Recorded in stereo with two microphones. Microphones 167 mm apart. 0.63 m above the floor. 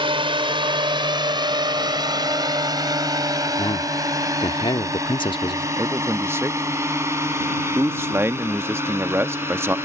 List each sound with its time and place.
0.0 s a drone: 30° right (ahead or behind); by 9.9 s 15° right (ahead or behind)
3.6 s a man speaking: 30° left (ahead or behind)
5.8 s a man speaking: 15° right (ahead or behind)